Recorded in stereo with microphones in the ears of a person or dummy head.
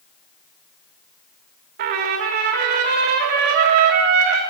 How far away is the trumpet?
About 1.4 m.